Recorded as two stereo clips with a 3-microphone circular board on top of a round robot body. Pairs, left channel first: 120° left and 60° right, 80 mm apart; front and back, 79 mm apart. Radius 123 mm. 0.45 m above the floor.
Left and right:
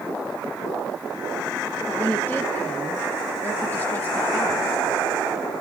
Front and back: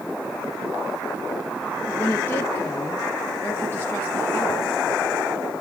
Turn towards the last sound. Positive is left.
turn(degrees=60)